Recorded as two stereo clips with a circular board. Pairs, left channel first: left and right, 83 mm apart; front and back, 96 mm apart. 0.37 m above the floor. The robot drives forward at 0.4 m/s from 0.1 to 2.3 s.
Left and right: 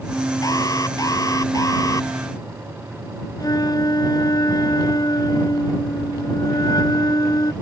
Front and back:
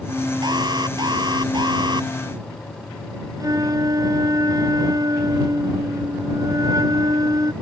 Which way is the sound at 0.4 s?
135° left.